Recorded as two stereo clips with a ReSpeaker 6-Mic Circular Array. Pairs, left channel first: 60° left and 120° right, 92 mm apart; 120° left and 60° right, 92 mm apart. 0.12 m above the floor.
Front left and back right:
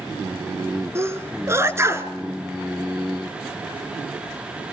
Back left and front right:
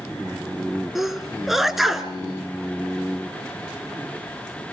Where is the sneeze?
145° right, 1.7 m.